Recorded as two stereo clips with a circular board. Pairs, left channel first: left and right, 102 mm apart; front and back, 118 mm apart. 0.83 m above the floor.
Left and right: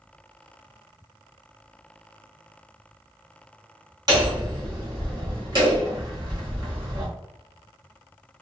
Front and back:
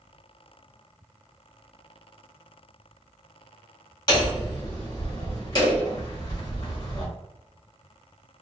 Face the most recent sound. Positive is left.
turn(degrees=-50)